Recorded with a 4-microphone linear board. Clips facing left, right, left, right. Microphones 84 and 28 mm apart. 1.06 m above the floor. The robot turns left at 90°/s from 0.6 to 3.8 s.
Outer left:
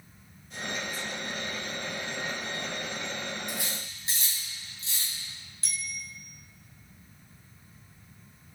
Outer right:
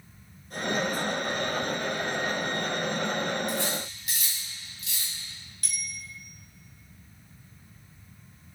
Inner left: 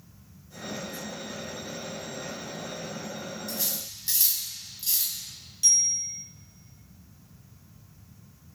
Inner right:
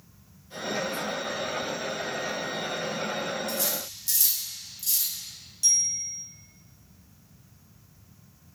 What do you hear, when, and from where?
3.5 s cutlery clinking: 5° left (ahead or behind), 4.5 m; by 5.1 s 30° left (ahead or behind), 4.5 m
5.6 s a bicycle bell: 30° left (ahead or behind), 5 m